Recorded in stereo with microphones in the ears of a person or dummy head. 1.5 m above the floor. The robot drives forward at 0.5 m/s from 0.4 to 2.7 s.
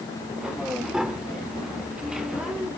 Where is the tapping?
5° right (ahead or behind).